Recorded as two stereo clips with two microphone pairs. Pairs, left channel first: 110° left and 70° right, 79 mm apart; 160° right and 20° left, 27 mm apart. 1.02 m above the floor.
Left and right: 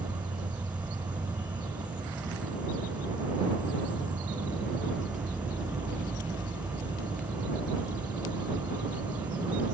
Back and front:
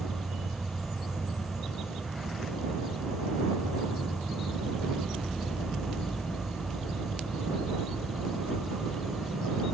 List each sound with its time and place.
0.0 s an insect: 55° right